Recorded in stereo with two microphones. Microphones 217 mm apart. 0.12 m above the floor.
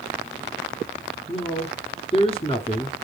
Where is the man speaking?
25° left (ahead or behind), 1.2 m.